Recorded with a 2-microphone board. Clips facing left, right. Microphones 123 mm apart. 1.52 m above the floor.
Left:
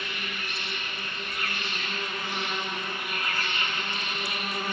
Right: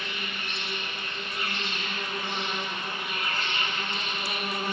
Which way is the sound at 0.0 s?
25° right (ahead or behind).